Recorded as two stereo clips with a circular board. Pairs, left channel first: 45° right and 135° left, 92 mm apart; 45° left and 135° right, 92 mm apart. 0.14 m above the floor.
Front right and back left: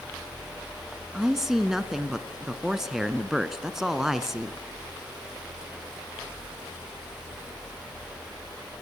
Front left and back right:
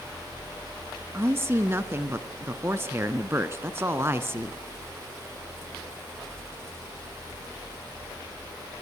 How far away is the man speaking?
About 1.5 m.